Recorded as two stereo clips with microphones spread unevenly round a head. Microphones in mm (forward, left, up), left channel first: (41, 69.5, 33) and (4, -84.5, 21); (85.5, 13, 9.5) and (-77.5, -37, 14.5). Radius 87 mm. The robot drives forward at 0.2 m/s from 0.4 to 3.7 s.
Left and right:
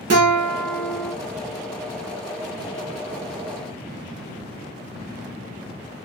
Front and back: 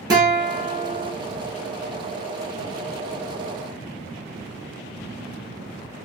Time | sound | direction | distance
0.1 | a guitar | 95° right | 1.2 m